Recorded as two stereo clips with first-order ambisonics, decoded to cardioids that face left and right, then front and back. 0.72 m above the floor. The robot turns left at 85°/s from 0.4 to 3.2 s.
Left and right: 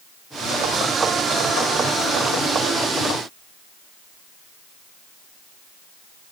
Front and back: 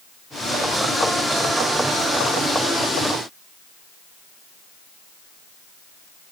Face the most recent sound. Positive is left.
No sound to turn to.